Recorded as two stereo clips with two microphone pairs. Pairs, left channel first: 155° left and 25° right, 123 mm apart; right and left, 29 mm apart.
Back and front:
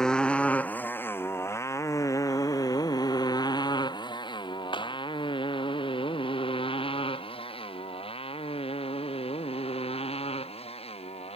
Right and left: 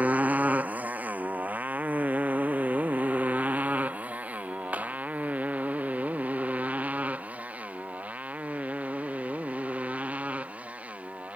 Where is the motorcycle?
70° left; by 11.4 s 120° left.